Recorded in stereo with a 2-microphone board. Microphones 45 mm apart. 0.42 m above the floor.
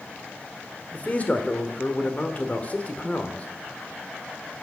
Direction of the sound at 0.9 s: 30° left (ahead or behind).